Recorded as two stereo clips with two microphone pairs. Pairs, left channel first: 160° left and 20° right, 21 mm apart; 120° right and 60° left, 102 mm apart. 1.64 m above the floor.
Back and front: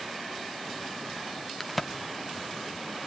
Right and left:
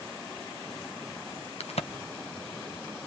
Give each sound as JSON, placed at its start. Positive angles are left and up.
{"t": 1.6, "sound": "a crack", "azimuth_deg": -115, "distance_m": 1.2}